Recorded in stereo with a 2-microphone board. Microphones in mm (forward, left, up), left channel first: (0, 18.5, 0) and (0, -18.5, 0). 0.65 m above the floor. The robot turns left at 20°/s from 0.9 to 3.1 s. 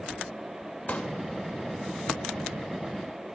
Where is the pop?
45° left (ahead or behind), 2.5 m; by 1.1 s 40° left (ahead or behind), 2.5 m.